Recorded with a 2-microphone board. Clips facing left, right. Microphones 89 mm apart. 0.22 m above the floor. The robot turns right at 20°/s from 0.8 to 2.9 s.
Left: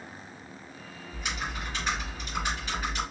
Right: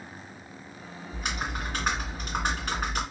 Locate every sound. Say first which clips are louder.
1.1 s typing on a keyboard: right 2 dB; 120° right, 3 m; by 3.0 s 85° right, 3 m